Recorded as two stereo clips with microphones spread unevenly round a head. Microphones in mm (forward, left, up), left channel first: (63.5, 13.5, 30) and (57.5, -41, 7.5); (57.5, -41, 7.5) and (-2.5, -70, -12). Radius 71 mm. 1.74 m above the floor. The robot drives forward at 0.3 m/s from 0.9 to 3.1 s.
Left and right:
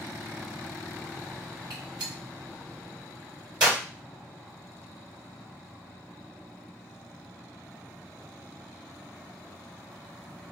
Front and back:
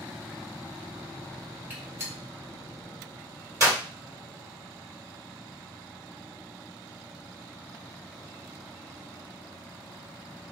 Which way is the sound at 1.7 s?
90° right.